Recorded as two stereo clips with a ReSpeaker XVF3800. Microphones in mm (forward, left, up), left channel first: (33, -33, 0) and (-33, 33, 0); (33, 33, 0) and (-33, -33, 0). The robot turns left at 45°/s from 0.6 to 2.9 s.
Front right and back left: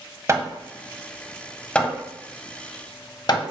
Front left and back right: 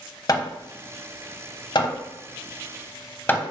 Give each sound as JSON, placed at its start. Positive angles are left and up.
{"t": 0.3, "sound": "hammering", "azimuth_deg": 85, "distance_m": 0.6}